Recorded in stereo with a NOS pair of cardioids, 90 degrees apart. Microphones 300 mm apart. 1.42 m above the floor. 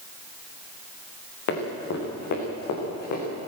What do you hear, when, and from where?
1.5 s running footsteps: 65° left, 8 m; by 3.2 s 80° left, 7.5 m